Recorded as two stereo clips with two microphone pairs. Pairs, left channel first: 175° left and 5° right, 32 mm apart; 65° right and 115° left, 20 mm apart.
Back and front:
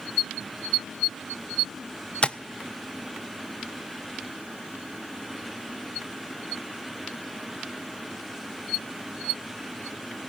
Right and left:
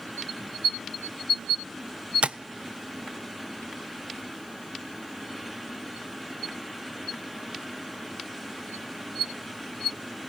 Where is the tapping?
120° left, 0.5 m.